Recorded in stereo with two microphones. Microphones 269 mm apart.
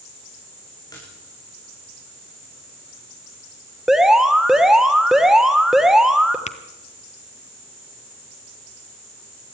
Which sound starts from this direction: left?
Tapping, at 6.5 s.